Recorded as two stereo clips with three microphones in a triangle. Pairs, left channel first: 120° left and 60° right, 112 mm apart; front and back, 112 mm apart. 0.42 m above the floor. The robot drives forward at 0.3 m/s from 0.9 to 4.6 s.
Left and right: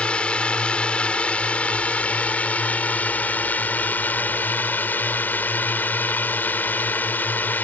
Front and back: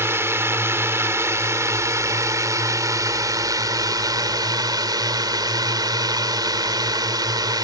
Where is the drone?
175° right; by 7.6 s straight behind.